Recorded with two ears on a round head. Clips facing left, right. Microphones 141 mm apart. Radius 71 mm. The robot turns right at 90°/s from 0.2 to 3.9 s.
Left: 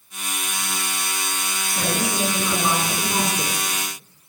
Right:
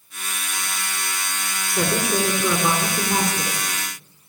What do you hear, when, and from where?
1.7 s a woman speaking: 160° right, 7.5 m; by 3.7 s 15° left, 7.5 m